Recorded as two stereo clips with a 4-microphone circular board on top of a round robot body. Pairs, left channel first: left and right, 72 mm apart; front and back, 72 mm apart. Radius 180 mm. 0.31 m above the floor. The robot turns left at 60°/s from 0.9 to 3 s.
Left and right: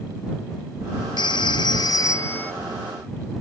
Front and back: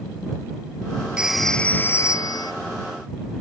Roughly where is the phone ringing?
Left.